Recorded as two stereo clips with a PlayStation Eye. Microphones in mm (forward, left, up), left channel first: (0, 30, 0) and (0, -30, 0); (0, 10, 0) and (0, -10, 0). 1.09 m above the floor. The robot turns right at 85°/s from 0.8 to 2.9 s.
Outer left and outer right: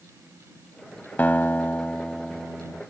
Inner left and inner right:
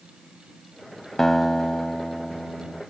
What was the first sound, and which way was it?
A guitar, 30° left (ahead or behind).